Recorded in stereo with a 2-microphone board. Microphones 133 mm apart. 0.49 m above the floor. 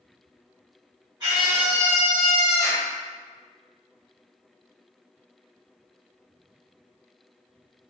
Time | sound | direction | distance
1.2 | a scream | 30° right (ahead or behind) | 2.0 m